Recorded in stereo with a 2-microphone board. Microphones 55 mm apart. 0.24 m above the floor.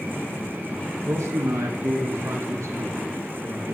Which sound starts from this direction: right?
A man speaking, at 1.0 s.